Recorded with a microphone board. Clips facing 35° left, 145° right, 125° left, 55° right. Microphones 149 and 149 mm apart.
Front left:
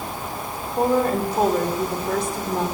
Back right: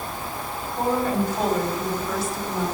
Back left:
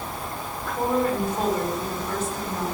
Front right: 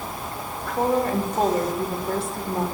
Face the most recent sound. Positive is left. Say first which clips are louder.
# front left 3 dB, front right 1 dB
turn(degrees=-5)